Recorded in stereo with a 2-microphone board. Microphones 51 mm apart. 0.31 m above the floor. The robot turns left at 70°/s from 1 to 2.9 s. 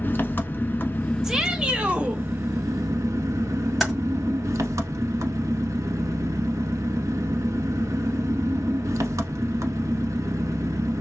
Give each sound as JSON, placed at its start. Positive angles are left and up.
{"t": 0.0, "sound": "an engine running", "azimuth_deg": 40, "distance_m": 0.8}
{"t": 1.2, "sound": "a shout", "side_deg": -10, "distance_m": 0.9}
{"t": 3.8, "sound": "typing on a keyboard", "side_deg": 0, "distance_m": 1.8}